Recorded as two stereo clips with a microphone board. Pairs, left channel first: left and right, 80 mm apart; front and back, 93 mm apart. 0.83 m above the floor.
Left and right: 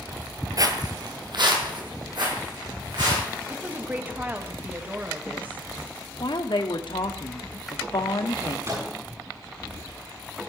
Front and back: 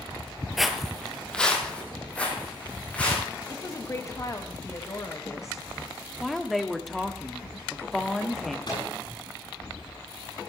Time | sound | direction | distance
0.6 | footsteps | 95° right | 1.1 m
3.5 | a woman speaking | 35° right | 1.1 m
6.2 | a woman speaking | 90° left | 1.3 m
8.7 | a microwave | 35° right | 8 m